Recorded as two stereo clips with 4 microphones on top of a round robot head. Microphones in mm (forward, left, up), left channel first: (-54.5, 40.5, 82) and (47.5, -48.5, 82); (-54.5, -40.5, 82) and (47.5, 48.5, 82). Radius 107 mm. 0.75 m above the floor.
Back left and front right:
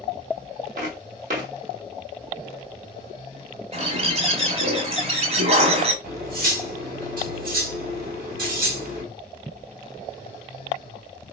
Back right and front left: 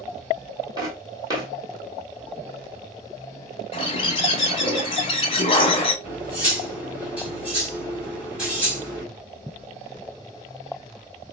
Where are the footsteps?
25° right, 1.6 m.